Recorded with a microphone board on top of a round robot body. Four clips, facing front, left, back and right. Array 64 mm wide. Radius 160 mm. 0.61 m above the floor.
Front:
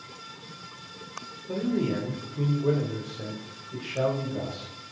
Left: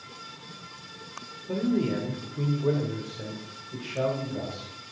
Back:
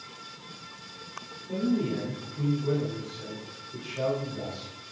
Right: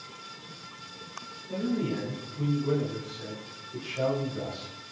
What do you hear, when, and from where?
1.5 s a man speaking: 50° left, 3 m; by 4.7 s 35° left, 5.5 m